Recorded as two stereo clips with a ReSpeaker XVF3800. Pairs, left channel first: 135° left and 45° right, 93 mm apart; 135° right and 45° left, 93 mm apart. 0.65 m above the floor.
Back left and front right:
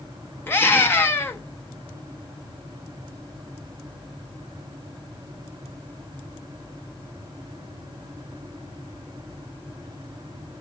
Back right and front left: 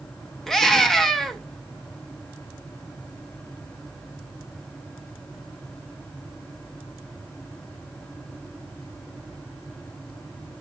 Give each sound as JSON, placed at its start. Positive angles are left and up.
{"t": 0.5, "sound": "a scream", "azimuth_deg": 145, "distance_m": 0.8}